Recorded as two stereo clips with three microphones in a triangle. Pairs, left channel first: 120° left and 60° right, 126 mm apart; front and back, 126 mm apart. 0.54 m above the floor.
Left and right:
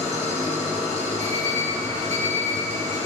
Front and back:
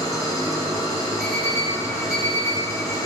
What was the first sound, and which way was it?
An engine running, 65° right.